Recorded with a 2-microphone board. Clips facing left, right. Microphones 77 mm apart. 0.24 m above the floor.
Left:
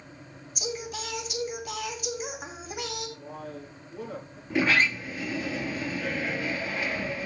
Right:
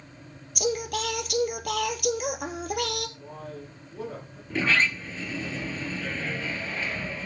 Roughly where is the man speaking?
Centre.